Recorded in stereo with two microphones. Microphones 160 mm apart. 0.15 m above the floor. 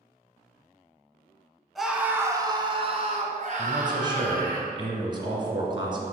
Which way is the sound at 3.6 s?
30° right (ahead or behind).